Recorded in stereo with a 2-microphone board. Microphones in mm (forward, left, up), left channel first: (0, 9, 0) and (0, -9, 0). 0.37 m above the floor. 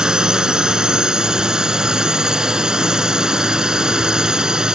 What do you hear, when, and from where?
0.0 s a drone: 50° right (ahead or behind)